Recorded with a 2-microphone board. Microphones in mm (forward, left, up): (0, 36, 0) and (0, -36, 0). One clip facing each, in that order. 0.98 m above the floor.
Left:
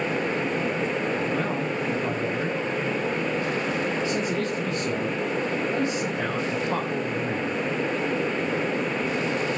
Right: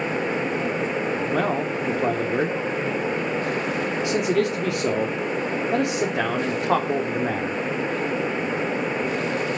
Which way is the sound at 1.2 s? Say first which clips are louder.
Right 3 dB; 80° right.